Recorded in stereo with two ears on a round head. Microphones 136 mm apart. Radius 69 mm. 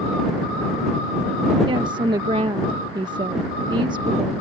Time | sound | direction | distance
1.7 | a woman speaking | 30° right (ahead or behind) | ?